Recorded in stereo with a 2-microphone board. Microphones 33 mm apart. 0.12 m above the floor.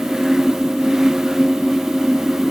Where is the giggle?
No giggle in this recording.